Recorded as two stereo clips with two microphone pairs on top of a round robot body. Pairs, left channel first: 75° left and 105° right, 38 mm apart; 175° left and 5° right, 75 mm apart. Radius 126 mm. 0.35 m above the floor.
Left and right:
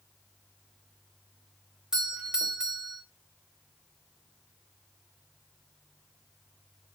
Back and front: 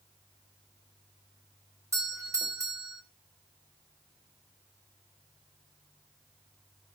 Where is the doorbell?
45° right, 2.5 m.